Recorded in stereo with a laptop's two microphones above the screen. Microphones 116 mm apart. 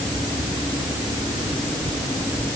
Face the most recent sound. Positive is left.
No sound to turn to.